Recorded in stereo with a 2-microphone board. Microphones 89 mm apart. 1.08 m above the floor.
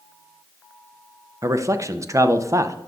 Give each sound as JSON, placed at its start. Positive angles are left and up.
{"t": 1.4, "sound": "a man speaking", "side_deg": -35, "distance_m": 0.5}